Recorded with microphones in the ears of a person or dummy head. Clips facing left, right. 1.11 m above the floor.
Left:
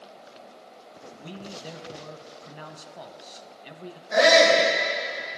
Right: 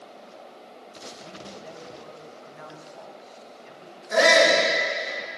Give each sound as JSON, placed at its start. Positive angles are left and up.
{"t": 1.2, "sound": "a man speaking", "side_deg": 45, "distance_m": 0.8}
{"t": 4.1, "sound": "a shout", "side_deg": -55, "distance_m": 5.0}